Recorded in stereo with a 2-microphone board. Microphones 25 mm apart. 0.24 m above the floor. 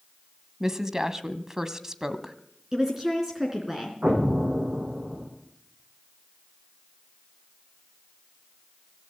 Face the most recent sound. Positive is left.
turn(degrees=-50)  # may be behind; listen again after turning